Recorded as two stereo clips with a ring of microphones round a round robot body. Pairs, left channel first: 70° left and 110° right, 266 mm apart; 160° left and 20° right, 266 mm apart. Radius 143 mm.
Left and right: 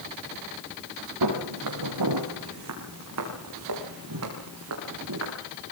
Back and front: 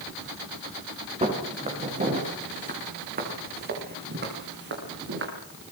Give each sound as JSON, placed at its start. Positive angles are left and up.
{"t": 1.2, "sound": "footsteps", "azimuth_deg": -90, "distance_m": 9.5}